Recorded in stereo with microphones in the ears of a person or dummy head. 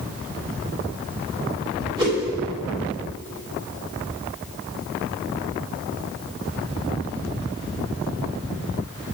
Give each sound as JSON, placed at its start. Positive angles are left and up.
{"t": 2.0, "sound": "a whoosh", "side_deg": -20, "distance_m": 2.0}